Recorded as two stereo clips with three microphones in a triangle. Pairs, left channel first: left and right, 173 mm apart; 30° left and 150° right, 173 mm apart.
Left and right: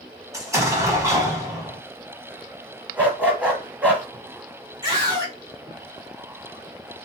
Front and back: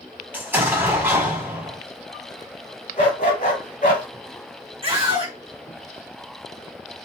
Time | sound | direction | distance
0.3 | an explosion | 100° right | 1.2 m
3.0 | a dog barking | 10° right | 1.0 m
4.8 | a scream | 135° right | 1.7 m